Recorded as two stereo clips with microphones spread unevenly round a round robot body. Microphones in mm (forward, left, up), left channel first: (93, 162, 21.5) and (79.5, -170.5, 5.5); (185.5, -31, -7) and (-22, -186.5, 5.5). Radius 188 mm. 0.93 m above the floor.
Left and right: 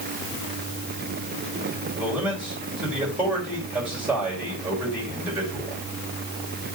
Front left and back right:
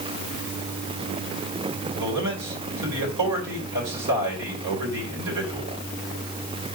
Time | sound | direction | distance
2.0 | a man speaking | straight behind | 3.5 m